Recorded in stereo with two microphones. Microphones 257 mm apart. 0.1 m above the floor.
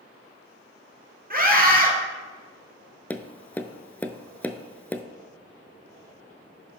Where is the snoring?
No snoring in this recording.